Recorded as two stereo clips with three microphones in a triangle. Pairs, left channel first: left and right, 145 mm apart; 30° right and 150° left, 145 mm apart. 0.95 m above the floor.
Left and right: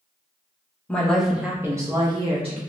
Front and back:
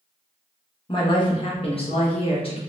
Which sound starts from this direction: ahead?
A woman speaking, at 0.9 s.